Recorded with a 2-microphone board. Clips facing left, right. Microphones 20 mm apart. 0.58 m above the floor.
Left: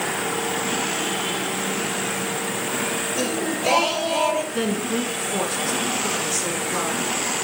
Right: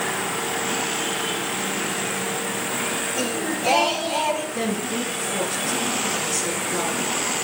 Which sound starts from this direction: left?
A woman speaking, at 4.5 s.